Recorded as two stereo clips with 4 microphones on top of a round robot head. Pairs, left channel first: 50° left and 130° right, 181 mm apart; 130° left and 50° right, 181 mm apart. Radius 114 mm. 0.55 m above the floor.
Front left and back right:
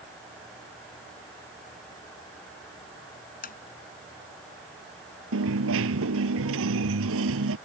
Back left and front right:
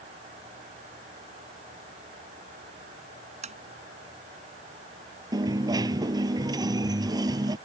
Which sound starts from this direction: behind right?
A dropped coin, at 5.3 s.